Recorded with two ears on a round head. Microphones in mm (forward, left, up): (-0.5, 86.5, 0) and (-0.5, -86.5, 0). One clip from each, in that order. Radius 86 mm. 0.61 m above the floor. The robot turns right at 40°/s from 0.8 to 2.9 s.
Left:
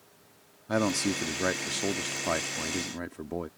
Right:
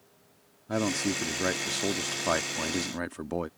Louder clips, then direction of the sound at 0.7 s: Left 1 dB; 140° left.